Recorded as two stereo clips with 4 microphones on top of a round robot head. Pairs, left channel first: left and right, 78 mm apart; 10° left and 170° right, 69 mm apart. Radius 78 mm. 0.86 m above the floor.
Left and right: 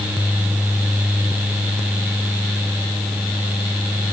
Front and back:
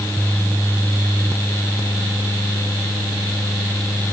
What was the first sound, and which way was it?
Only background noise.